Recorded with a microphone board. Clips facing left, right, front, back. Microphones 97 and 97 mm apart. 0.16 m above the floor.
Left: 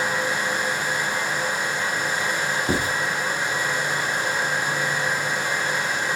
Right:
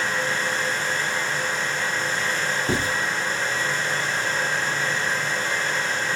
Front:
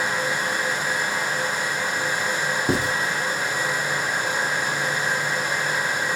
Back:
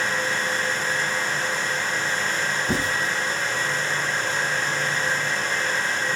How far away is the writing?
About 4.5 m.